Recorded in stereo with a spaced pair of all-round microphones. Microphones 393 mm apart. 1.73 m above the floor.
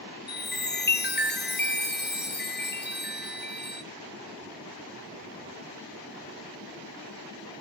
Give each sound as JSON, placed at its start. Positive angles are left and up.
{"t": 0.3, "sound": "a chime", "side_deg": 25, "distance_m": 1.2}